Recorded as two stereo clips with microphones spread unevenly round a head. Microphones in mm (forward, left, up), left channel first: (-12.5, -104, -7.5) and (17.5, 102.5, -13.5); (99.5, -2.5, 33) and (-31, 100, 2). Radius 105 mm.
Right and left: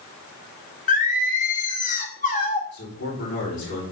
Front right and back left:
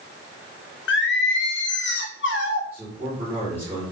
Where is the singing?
45° right, 1.4 m.